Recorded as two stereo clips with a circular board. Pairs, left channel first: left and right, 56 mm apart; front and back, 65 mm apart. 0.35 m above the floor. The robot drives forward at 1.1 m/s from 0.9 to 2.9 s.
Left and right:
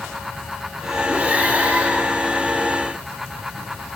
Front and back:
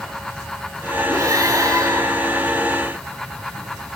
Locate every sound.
1.1 s breathing: 155° right, 4.5 m; by 2.5 s 160° right, 6 m